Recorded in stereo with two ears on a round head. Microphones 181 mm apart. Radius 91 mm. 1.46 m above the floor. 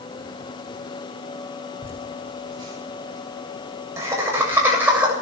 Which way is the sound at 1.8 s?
25° right (ahead or behind).